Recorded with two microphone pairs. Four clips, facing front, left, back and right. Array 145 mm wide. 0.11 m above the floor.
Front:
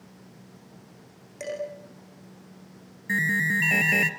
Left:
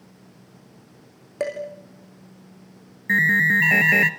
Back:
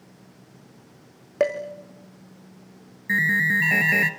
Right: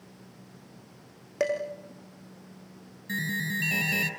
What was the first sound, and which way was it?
Dishes clattering, straight behind.